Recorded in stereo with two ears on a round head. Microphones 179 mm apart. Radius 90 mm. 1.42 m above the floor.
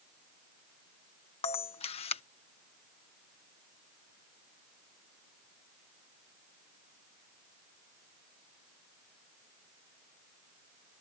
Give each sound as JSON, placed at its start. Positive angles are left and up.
{"t": 1.4, "sound": "a camera shutter", "side_deg": 30}